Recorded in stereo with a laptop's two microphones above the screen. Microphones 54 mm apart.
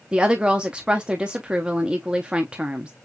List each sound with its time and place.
0.1 s a woman speaking: 20° right (ahead or behind), 0.7 m